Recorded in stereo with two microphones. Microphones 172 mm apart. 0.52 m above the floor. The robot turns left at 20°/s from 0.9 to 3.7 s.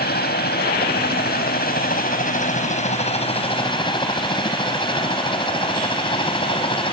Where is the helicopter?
65° left (ahead or behind); by 6.9 s 30° left (ahead or behind).